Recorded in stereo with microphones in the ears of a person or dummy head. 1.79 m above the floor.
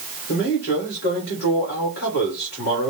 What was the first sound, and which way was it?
A man speaking, 55° left (ahead or behind).